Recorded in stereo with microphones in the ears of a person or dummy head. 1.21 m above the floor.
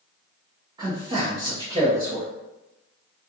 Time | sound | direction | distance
0.8 | a man speaking | 20° right (ahead or behind) | 0.9 m